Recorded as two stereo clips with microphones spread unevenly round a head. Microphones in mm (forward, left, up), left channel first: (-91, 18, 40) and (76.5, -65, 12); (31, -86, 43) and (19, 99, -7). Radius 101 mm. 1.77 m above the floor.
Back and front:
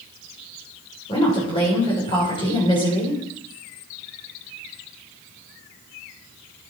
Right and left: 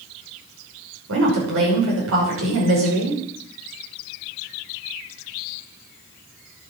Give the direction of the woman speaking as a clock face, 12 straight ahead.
9 o'clock.